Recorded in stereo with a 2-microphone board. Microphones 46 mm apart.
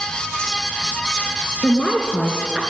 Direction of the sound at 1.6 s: 15° left (ahead or behind).